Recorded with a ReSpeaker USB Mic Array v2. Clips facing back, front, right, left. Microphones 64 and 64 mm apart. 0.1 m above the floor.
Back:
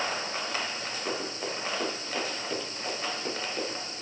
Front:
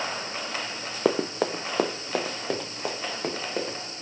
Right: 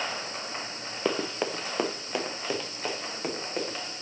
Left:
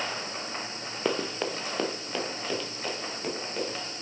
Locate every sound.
1.1 s running footsteps: 5° right, 0.8 m; by 3.9 s 20° right, 3.5 m